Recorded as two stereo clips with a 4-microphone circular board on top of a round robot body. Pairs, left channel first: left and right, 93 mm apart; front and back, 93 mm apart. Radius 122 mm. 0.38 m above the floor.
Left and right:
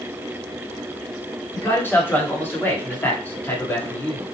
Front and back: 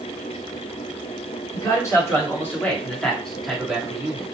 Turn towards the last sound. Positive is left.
turn(degrees=135)